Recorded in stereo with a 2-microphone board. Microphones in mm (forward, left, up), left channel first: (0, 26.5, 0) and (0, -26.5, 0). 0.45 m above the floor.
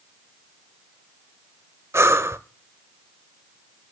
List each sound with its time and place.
1.9 s breathing: 65° right (ahead or behind), 0.5 m